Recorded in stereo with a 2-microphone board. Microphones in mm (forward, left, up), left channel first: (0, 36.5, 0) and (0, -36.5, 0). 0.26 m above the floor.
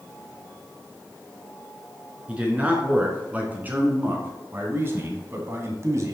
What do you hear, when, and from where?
2.3 s a man speaking: 15° right (ahead or behind), 3.5 m; by 6.2 s 45° right (ahead or behind), 2 m